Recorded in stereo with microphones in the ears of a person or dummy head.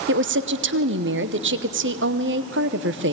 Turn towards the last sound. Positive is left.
turn(degrees=-50)  # may be behind; listen again after turning